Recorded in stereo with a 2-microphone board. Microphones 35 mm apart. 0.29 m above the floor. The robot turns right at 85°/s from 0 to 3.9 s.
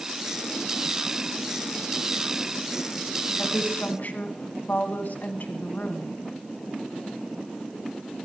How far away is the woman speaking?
About 2.5 m.